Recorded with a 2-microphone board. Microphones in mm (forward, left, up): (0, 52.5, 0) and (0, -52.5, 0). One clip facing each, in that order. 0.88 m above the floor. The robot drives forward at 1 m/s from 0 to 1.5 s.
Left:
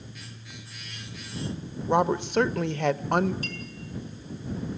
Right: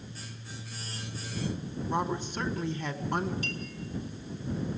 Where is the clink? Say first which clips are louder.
Even; 40° left (ahead or behind), 4.5 m.